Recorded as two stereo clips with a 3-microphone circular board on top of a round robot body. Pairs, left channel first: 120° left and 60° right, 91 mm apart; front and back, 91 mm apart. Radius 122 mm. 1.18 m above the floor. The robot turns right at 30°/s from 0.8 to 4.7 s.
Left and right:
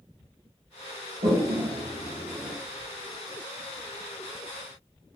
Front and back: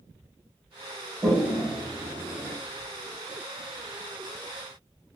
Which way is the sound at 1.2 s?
90° right.